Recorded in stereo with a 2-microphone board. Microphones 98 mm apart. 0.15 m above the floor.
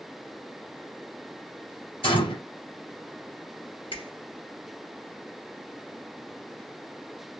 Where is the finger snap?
60° left (ahead or behind), 3 m.